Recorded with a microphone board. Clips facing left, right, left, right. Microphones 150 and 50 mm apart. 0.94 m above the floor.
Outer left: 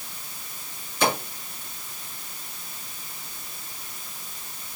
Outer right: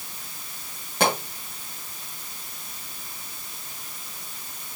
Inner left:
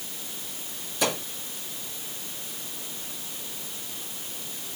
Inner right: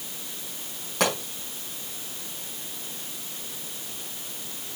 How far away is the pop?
About 5.5 m.